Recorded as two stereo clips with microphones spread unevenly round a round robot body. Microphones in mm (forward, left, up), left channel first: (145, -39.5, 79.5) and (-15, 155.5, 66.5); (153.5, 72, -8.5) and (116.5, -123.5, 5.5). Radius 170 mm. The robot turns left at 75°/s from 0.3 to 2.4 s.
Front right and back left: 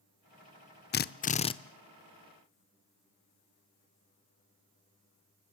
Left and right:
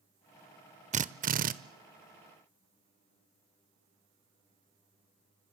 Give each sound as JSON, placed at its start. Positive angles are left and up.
{"t": 0.9, "sound": "a drill", "azimuth_deg": -70, "distance_m": 0.7}